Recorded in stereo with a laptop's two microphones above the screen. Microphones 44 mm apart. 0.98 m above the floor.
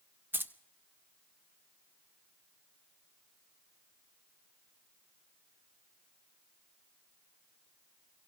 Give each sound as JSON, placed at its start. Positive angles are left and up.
{"t": 0.3, "sound": "keys jangling", "side_deg": -60, "distance_m": 0.6}